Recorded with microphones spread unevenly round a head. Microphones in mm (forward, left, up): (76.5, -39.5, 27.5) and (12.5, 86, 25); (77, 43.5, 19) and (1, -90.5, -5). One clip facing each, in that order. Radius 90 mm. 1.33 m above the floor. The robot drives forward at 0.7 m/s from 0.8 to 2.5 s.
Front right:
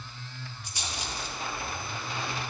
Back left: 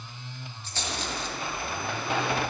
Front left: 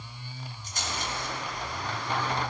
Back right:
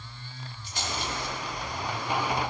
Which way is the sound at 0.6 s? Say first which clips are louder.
Back left 5 dB, back right 2 dB; 15° left.